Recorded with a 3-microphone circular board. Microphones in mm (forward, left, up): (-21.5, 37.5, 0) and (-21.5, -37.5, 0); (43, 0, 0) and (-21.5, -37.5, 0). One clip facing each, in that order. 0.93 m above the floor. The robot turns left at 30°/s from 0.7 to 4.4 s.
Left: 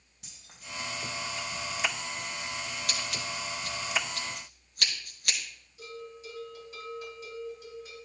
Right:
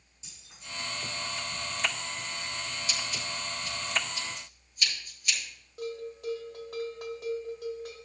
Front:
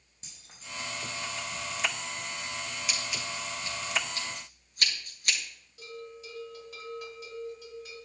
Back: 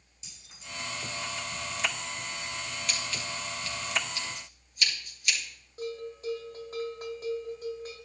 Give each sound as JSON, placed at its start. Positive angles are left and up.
{"t": 0.2, "sound": "keys jangling", "azimuth_deg": 70, "distance_m": 4.5}
{"t": 2.9, "sound": "scissors", "azimuth_deg": 115, "distance_m": 3.0}
{"t": 5.8, "sound": "a bell", "azimuth_deg": -110, "distance_m": 2.5}